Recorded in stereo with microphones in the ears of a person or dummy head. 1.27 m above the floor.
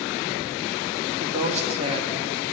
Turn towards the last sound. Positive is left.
turn(degrees=-35)  # may be behind; listen again after turning